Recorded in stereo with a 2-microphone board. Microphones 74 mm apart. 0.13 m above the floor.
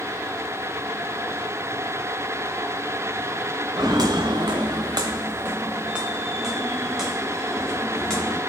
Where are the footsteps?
55° right (ahead or behind), 0.9 m; by 8.4 s 5° left (ahead or behind), 2.5 m.